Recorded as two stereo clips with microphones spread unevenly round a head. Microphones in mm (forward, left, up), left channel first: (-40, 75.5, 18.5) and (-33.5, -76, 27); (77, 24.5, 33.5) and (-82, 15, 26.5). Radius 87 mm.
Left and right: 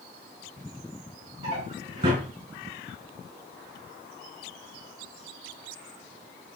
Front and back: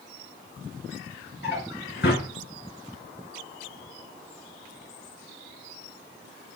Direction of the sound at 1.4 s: 30° right.